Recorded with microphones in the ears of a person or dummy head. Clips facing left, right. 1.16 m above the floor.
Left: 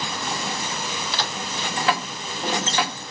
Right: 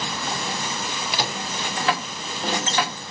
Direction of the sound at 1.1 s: 15° right (ahead or behind).